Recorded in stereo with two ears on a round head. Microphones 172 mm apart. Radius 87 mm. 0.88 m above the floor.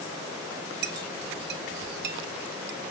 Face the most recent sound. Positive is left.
turn(degrees=-50)  # may be behind; listen again after turning